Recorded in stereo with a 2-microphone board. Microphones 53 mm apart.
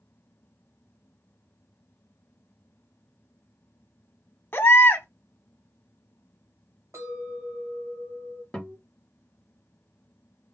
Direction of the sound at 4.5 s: 45° left (ahead or behind).